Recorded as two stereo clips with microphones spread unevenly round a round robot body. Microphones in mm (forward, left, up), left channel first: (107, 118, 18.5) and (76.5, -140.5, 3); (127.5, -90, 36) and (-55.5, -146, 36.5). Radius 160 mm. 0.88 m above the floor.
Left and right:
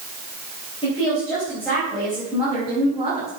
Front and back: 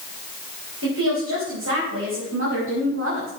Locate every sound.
0.8 s a woman speaking: 155° left, 4 m; by 3.3 s 175° right, 5.5 m